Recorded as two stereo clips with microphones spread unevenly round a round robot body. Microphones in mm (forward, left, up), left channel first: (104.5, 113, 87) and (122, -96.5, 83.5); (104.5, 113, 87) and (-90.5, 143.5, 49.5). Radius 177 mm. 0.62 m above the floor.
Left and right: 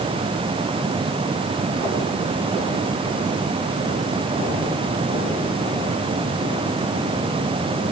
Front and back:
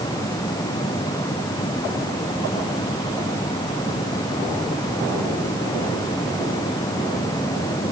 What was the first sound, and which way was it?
Only background noise.